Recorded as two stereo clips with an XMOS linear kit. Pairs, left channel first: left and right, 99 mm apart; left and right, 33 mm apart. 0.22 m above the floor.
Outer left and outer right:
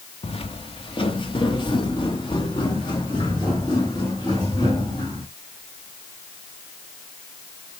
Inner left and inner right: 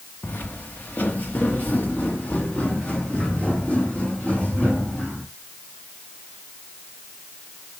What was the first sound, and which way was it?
Footsteps, 70° left (ahead or behind).